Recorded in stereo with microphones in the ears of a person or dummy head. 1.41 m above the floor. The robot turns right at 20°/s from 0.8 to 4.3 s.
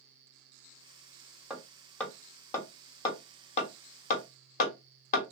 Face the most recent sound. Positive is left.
turn(degrees=45)  # may be behind; listen again after turning